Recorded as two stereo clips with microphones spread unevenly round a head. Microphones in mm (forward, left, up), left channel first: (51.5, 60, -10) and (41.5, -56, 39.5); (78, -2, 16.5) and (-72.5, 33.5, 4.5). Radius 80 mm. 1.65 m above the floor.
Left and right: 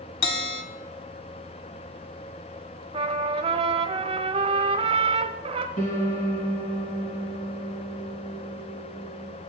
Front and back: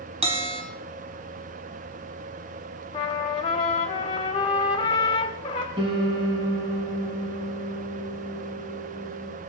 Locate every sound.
0.2 s a bell: 115° left, 1.1 m
2.9 s a trumpet: 70° right, 0.8 m
5.8 s a piano: 110° left, 2.5 m